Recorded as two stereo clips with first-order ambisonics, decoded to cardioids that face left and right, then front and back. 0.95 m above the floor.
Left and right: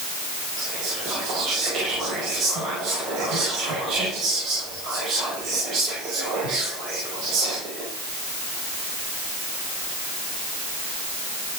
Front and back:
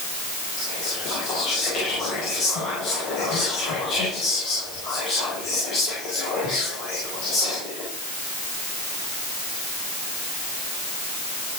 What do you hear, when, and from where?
0.6 s whispering: 45° right, 5.5 m